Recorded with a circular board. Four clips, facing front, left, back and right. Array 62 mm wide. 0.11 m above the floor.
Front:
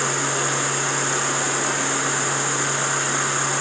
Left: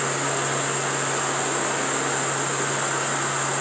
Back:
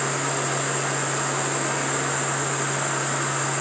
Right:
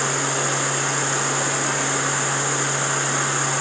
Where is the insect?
45° right, 2 m.